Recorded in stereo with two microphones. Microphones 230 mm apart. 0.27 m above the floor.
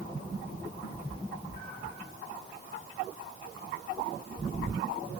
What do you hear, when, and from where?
0.8 s a cat meowing: 50° left (ahead or behind), 5 m; by 2.0 s 40° left (ahead or behind), 5 m